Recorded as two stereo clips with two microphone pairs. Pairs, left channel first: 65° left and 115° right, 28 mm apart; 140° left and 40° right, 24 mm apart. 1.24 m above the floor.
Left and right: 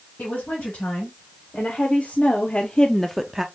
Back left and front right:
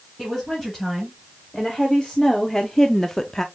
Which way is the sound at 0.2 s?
50° left.